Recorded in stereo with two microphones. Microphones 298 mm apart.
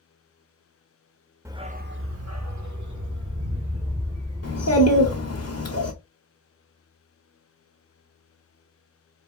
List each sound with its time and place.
1.4 s a dog barking: 10° right (ahead or behind), 0.5 m; by 5.4 s 85° right, 2.5 m
4.4 s a child speaking: 55° left (ahead or behind), 1.3 m